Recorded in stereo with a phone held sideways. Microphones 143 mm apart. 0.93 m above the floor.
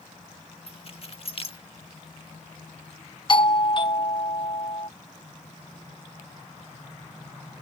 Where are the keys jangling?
45° left (ahead or behind).